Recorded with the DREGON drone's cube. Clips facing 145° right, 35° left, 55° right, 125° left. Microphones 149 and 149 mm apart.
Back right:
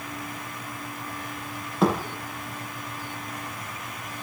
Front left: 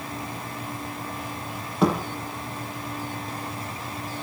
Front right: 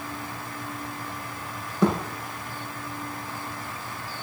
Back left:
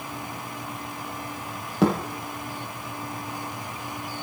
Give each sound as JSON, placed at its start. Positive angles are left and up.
{"t": 1.8, "sound": "a thud", "azimuth_deg": 125, "distance_m": 6.5}